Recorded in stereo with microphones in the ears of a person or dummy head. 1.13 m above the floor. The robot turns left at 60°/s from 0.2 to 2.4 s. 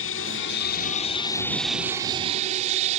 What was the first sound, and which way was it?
An aircraft, 95° left.